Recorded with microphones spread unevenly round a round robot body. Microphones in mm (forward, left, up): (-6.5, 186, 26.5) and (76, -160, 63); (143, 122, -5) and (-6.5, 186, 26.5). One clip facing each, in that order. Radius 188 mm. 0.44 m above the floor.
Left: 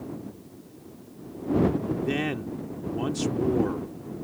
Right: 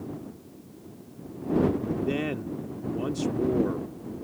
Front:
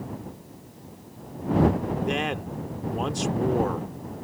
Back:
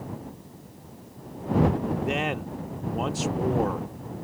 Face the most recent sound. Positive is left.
turn(degrees=55)